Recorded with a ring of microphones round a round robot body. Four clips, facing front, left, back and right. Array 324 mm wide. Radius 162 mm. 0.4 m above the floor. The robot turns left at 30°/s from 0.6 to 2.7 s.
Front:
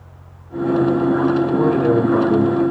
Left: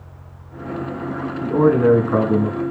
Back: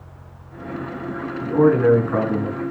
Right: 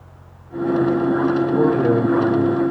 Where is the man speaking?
110° left, 4 m; by 2.6 s 75° left, 4 m.